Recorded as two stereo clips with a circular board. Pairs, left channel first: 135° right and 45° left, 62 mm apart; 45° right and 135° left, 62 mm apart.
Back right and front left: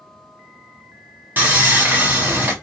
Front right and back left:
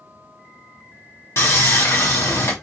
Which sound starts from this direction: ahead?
Sawing, at 1.4 s.